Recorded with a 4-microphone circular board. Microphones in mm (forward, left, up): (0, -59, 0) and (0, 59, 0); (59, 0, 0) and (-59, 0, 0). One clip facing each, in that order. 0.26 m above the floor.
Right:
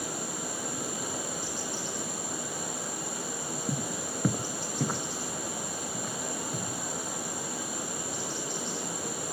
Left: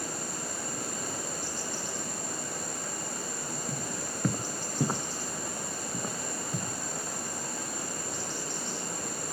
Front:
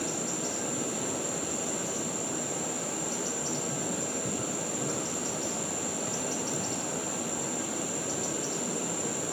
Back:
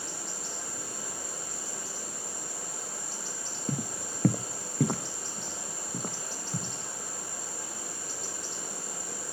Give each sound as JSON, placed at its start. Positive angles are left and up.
{"t": 0.0, "sound": "running water", "azimuth_deg": -10, "distance_m": 1.5}
{"t": 3.7, "sound": "footsteps", "azimuth_deg": -145, "distance_m": 0.7}